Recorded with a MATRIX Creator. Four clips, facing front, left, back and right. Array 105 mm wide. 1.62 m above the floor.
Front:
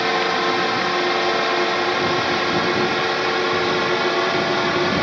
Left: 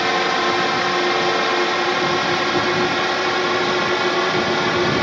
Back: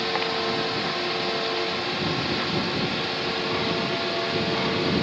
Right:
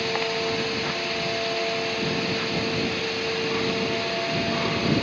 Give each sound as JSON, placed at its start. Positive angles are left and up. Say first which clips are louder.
{"t": 0.0, "sound": "a drone", "louder": "left 8 dB, front 7 dB", "azimuth_deg": 55}